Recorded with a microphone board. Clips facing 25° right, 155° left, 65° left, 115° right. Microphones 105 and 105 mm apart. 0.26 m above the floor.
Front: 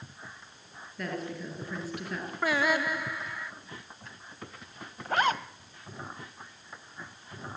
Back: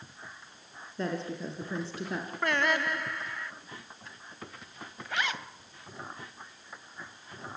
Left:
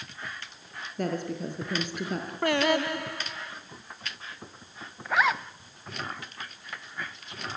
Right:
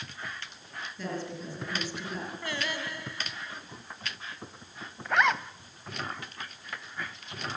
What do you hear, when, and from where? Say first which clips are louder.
1.0 s a woman speaking: back 2 dB, left 6 dB; 95° left, 4.5 m
2.4 s singing: front 2 dB, left 14 dB; 65° left, 0.7 m
5.0 s a zipper: front 7 dB, even; 20° right, 0.7 m